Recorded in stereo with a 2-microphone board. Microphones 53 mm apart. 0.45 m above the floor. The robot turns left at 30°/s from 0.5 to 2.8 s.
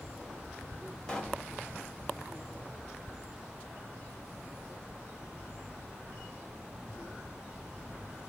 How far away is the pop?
About 1.5 m.